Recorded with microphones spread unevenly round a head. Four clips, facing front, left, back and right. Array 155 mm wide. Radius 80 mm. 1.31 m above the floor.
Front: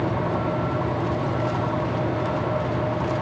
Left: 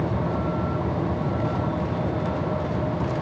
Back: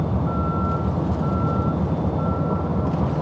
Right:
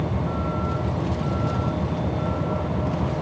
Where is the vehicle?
Straight behind; by 3.2 s 170° right.